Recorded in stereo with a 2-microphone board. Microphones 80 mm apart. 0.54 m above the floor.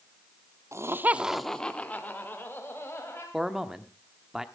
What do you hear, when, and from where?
0.7 s laughter: 40° right (ahead or behind), 0.8 m; by 3.2 s 30° left (ahead or behind), 2.5 m
3.3 s a man speaking: 5° right (ahead or behind), 0.9 m